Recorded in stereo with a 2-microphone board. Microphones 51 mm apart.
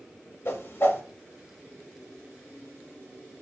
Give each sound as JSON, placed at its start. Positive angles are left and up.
{"t": 0.5, "sound": "a whoosh", "side_deg": 45, "distance_m": 0.5}